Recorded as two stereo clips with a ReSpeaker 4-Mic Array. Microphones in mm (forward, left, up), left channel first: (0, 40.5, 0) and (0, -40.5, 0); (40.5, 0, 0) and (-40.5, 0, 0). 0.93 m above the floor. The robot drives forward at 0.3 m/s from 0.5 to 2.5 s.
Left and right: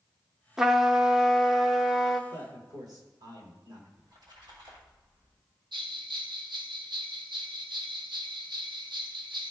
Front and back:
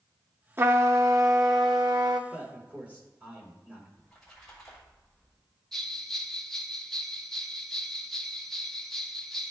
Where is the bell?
85° right, 0.8 m.